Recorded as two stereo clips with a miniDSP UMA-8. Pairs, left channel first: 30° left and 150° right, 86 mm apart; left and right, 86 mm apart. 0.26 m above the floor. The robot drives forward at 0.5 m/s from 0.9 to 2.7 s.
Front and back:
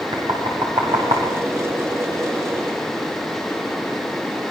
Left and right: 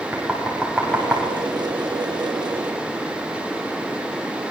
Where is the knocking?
Straight behind, 8 m.